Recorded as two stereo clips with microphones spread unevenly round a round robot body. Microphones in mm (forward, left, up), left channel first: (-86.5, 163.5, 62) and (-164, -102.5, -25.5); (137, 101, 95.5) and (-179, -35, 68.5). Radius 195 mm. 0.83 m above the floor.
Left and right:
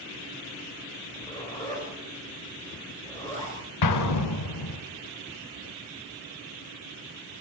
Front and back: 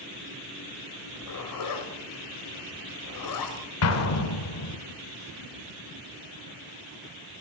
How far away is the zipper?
About 3.5 m.